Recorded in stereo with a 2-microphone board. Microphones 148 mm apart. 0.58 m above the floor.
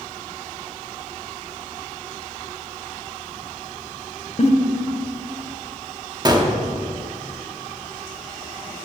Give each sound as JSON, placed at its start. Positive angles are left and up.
{"t": 4.4, "sound": "a giggle", "side_deg": 45, "distance_m": 0.8}
{"t": 6.2, "sound": "a gunshot", "side_deg": -30, "distance_m": 0.9}